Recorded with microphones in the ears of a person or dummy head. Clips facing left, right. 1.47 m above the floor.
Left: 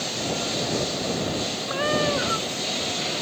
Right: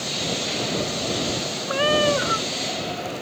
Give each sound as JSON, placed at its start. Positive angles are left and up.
{"t": 1.7, "sound": "a cat meowing", "side_deg": -45}